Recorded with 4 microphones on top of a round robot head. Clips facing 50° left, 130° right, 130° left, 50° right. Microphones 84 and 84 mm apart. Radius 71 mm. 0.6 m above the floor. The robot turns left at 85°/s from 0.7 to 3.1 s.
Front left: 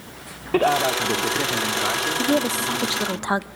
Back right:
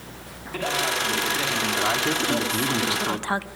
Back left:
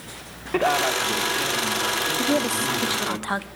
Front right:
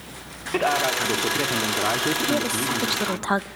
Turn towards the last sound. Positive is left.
turn(degrees=-5)